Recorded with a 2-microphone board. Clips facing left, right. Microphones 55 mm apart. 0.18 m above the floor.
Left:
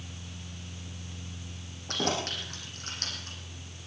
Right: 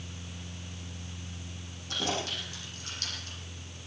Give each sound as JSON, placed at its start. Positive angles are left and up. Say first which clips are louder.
{"t": 1.9, "sound": "keys jangling", "louder": "left 2 dB", "side_deg": 60, "distance_m": 6.0}